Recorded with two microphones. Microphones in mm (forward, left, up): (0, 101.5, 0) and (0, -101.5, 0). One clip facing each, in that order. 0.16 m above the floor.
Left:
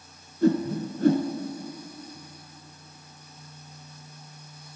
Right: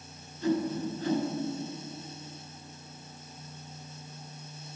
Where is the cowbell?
I don't hear a cowbell.